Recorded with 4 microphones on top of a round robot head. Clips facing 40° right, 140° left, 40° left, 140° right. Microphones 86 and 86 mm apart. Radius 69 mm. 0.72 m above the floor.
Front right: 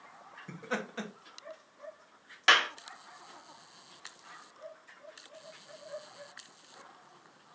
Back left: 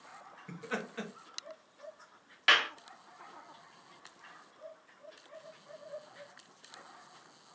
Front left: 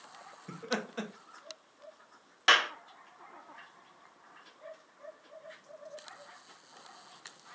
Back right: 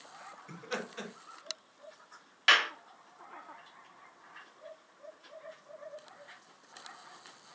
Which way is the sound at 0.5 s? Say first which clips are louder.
Front right 2 dB, front left 3 dB; 20° left.